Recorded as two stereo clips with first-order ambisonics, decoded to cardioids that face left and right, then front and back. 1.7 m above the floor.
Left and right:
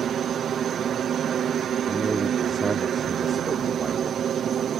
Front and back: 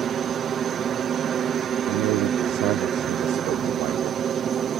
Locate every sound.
0.0 s a helicopter: 130° right
1.9 s a man speaking: 165° right